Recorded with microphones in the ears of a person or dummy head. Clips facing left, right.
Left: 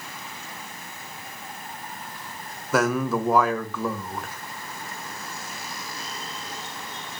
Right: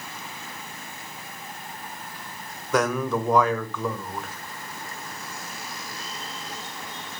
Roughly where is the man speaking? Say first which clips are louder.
Left 1 dB; centre.